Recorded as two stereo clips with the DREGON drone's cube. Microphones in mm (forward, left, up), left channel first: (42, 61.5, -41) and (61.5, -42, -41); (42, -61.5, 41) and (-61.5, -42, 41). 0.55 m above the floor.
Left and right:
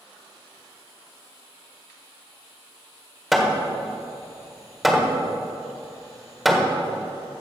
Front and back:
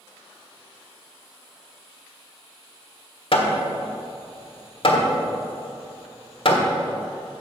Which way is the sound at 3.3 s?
10° left.